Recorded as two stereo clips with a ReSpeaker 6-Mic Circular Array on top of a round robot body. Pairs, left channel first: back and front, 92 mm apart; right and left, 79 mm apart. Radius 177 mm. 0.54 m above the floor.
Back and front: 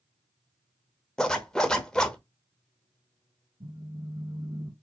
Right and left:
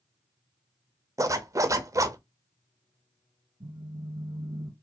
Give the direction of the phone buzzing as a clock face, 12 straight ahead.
10 o'clock.